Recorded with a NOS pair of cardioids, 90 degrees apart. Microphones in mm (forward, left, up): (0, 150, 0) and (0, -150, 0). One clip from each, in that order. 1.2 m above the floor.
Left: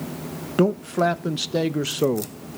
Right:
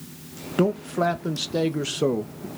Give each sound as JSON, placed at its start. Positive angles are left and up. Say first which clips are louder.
{"t": 0.6, "sound": "a man speaking", "louder": "left 2 dB", "azimuth_deg": 5, "distance_m": 1.3}